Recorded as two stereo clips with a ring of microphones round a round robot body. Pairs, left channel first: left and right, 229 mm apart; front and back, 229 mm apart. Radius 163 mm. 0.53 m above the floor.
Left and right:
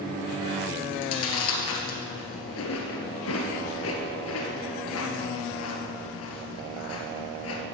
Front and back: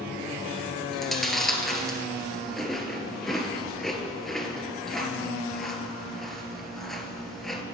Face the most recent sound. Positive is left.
turn(degrees=90)